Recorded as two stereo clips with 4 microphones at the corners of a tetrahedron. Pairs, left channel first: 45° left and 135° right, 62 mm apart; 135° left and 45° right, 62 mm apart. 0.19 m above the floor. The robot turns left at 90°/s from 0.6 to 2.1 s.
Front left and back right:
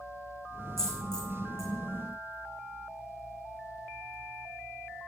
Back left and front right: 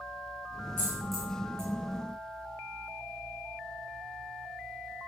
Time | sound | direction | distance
0.8 | a dropped coin | 80° left | 3.5 m